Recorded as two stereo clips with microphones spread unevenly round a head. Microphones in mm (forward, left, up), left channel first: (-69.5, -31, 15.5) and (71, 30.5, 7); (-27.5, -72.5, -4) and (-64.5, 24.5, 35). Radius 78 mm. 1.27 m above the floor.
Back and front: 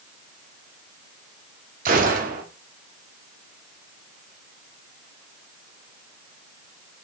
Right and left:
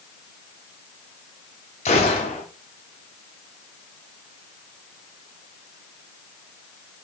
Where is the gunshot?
15° right, 1.7 m.